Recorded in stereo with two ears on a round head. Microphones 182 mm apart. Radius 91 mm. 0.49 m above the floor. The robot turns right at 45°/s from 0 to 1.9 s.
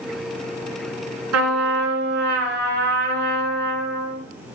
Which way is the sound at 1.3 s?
80° right.